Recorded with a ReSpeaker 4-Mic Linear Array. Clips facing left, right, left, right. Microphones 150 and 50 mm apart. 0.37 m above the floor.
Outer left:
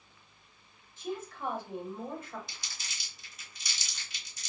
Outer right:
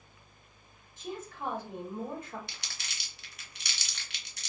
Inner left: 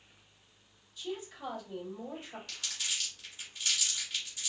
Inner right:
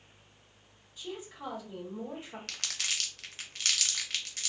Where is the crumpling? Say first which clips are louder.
Outer right 1 dB, inner right 3 dB; 65° right (ahead or behind), 0.6 m.